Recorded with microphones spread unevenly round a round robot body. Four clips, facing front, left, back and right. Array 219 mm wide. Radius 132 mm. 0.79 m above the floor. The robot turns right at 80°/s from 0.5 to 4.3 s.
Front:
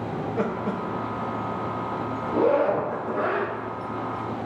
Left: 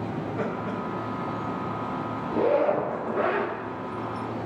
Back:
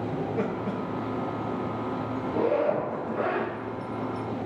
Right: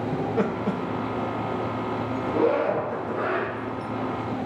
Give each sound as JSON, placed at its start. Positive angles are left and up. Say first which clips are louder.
{"t": 0.1, "sound": "laughter", "louder": "right 6 dB, front 4 dB", "azimuth_deg": -90, "distance_m": 0.8}
{"t": 2.3, "sound": "a zipper", "louder": "even, front 4 dB", "azimuth_deg": -20, "distance_m": 2.0}